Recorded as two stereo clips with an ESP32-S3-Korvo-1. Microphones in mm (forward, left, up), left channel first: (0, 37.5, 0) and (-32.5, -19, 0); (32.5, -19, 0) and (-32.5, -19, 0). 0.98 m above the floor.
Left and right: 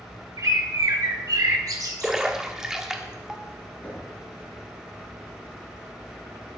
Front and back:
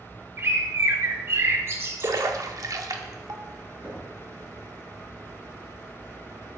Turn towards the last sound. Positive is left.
turn(degrees=110)